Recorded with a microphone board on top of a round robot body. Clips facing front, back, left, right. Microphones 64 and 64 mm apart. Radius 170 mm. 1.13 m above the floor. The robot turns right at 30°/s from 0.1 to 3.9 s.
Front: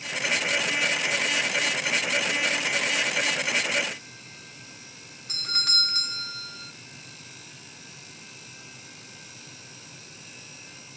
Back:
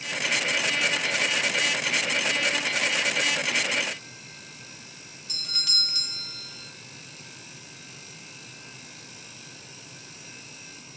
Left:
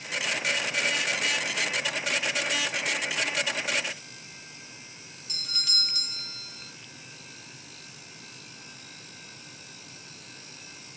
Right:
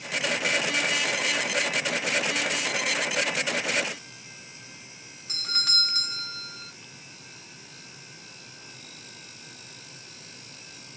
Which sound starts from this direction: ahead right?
A doorbell, at 5.3 s.